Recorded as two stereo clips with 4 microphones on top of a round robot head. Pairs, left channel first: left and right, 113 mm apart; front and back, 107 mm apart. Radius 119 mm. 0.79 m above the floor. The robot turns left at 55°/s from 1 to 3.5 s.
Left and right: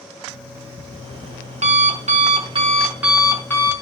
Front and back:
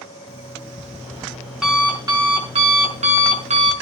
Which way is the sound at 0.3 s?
55° right.